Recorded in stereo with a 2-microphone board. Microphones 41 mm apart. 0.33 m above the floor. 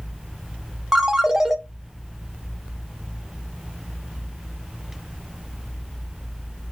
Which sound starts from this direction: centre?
A ringtone, at 0.9 s.